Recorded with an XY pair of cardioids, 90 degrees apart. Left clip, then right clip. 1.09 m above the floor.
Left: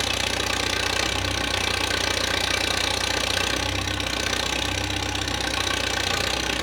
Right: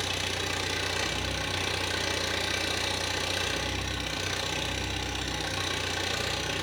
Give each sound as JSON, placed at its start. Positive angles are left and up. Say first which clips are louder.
{"t": 0.0, "sound": "an engine running", "louder": "left 6 dB", "azimuth_deg": 60, "distance_m": 1.3}